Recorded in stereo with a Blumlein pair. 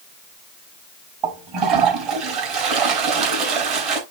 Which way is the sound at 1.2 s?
40° right.